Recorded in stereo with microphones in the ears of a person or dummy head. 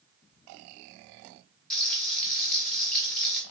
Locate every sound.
1.7 s frying: centre (ahead or behind), 1.4 m